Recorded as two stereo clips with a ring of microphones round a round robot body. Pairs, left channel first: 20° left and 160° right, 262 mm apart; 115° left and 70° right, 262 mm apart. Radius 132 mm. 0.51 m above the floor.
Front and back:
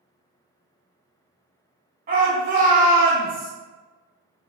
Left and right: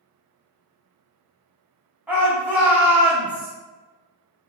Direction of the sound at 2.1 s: 145° right.